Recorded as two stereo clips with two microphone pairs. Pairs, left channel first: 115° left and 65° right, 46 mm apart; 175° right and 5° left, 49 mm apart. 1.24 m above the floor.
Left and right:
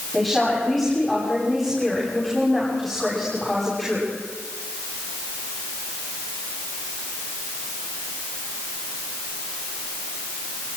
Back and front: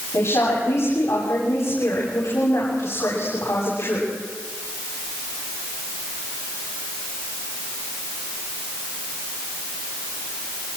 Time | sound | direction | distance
0.1 | a woman speaking | 150° right | 9.5 m